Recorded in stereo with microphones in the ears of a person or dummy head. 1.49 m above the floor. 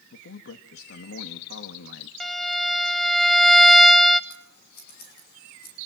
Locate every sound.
0.1 s a man speaking: 70° left (ahead or behind), 1.8 m
2.2 s a violin: centre (ahead or behind), 0.5 m
4.3 s scissors: 65° left (ahead or behind), 7 m